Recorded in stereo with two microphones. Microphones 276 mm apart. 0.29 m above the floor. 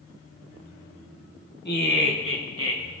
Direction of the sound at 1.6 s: 40° left (ahead or behind).